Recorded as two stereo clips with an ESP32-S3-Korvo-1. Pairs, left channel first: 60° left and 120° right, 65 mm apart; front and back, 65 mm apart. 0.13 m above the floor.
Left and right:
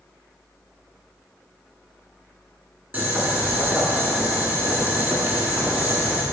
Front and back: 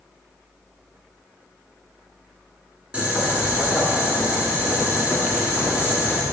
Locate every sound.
2.9 s boiling: 135° right, 1.5 m